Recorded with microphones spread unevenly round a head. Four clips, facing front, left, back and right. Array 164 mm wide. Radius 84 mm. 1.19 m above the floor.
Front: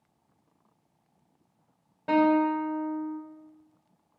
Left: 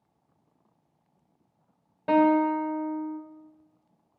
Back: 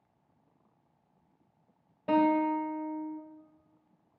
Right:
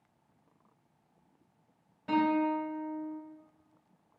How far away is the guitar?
About 2 m.